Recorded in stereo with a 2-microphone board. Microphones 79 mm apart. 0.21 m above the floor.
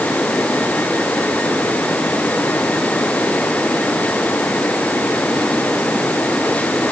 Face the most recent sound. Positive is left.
No sound to turn to.